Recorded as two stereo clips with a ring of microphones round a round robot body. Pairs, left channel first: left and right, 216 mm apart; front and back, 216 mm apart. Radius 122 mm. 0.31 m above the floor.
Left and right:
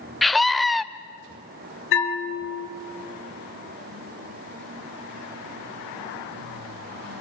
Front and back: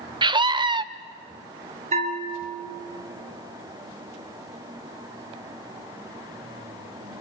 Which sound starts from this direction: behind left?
A bell, at 1.9 s.